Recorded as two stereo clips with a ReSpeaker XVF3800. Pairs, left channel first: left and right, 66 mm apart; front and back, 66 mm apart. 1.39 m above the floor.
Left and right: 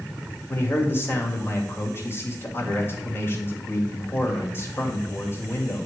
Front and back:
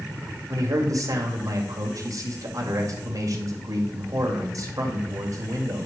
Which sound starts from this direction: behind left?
A man speaking, at 0.5 s.